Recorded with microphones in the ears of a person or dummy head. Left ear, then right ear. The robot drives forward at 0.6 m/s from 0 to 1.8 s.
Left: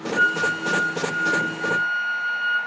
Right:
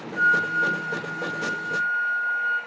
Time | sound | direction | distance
0.1 | a flute | 75° left (ahead or behind) | 3.5 m